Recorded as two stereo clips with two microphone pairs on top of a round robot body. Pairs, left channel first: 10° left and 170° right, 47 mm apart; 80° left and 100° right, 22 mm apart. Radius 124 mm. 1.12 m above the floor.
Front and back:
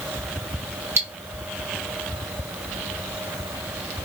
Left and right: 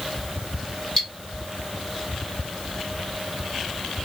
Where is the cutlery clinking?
155° left, 1.6 m.